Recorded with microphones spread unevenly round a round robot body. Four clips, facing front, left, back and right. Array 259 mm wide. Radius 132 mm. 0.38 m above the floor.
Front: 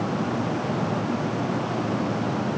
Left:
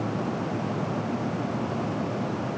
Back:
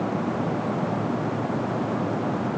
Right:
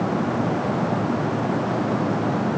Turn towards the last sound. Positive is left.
No sound to turn to.